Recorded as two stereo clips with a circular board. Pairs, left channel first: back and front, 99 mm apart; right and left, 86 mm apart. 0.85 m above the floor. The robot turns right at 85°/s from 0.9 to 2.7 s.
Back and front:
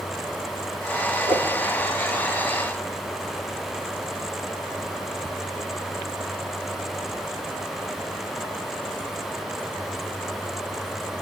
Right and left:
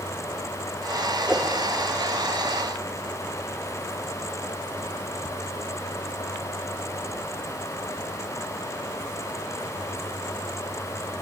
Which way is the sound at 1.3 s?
5° left.